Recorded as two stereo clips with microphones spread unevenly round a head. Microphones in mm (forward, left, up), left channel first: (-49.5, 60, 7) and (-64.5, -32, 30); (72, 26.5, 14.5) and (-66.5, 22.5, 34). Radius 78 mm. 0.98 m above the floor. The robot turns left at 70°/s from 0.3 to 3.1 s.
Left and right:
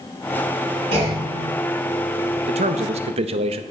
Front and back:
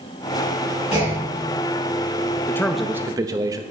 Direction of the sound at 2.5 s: 65° right.